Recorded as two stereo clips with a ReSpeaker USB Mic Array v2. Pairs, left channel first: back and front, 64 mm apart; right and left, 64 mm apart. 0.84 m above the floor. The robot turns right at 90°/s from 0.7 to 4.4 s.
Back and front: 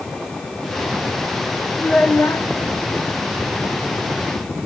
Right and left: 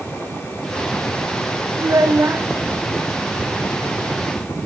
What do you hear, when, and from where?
1.8 s a child speaking: 95° left, 1.5 m; by 2.5 s 155° left, 1.5 m